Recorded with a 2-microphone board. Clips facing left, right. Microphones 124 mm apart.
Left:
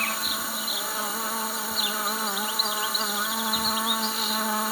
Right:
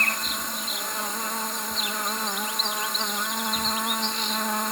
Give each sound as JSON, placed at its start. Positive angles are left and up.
{"t": 0.0, "sound": "an insect", "side_deg": 5}